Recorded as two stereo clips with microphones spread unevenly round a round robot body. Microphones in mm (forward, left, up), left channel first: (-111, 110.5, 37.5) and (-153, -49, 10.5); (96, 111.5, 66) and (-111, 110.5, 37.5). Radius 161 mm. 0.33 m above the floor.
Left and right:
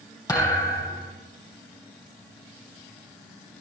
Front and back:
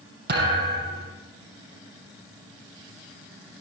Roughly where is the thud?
Behind left.